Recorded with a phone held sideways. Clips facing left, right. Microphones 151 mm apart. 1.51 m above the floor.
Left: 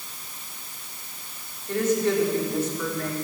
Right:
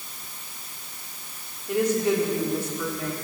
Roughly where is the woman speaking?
Centre.